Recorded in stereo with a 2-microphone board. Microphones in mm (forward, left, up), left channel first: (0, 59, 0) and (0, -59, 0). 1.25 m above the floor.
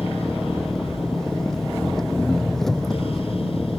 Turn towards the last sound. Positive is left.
turn(degrees=5)  # may be behind; listen again after turning